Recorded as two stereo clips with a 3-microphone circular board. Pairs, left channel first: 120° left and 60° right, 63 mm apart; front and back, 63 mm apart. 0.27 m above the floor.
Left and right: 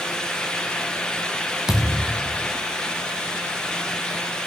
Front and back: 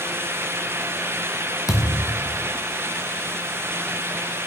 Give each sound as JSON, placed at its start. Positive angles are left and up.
{"t": 1.7, "sound": "a thud", "azimuth_deg": 20, "distance_m": 1.9}